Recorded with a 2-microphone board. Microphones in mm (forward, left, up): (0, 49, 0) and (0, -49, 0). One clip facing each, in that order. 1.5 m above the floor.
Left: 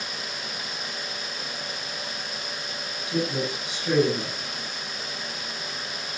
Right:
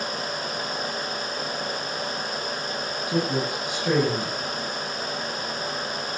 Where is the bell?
I don't hear a bell.